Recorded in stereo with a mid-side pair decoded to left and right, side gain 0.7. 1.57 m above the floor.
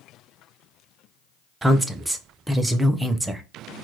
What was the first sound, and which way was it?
A woman speaking, 10° right.